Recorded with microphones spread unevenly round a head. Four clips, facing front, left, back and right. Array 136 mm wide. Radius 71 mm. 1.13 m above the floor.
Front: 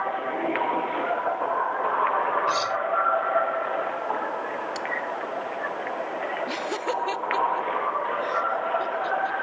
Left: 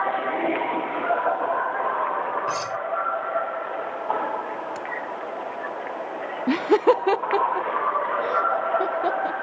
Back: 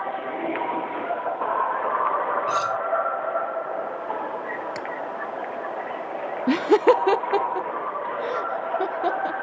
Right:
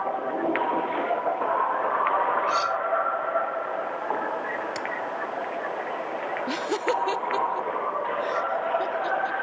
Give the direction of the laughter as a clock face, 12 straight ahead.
7 o'clock.